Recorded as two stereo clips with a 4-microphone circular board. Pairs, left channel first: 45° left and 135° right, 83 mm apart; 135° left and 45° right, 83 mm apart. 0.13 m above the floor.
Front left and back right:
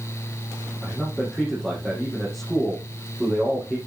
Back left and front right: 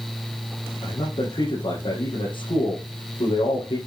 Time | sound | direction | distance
0.8 | a man speaking | 130° left | 6 m